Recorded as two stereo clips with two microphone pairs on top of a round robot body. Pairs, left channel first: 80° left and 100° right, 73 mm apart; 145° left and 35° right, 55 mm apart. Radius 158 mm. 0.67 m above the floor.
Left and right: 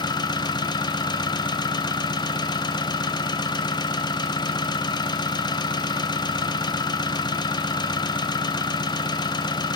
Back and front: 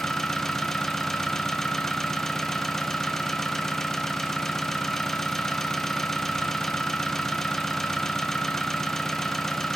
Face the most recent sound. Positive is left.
turn(degrees=65)